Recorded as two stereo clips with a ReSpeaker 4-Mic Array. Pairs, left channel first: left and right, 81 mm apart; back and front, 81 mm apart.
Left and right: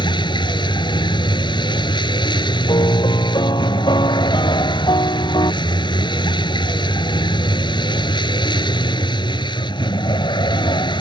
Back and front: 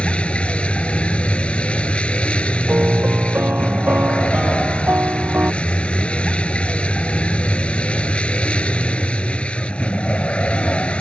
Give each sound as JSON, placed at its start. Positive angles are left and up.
{"t": 0.0, "sound": "a vehicle", "azimuth_deg": 105}
{"t": 2.7, "sound": "a piano", "azimuth_deg": 65}